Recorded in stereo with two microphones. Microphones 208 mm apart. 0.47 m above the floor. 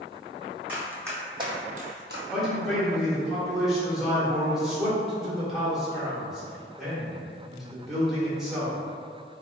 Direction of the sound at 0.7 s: 5° right (ahead or behind).